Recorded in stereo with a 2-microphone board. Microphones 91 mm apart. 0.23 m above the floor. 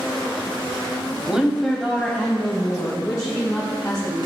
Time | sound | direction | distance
1.3 | a woman speaking | 10° right (ahead or behind) | 1.0 m